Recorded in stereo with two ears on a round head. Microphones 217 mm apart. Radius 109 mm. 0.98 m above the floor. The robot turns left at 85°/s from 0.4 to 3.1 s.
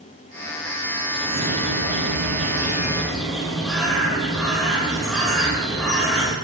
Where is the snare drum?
I don't hear a snare drum.